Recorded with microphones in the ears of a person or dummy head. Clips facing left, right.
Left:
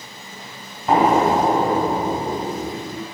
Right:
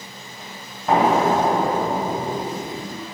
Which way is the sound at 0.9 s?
Centre (ahead or behind).